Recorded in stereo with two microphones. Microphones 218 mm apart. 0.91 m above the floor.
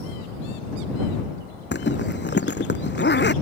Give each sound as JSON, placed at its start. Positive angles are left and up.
{"t": 1.7, "sound": "a zipper", "side_deg": 55}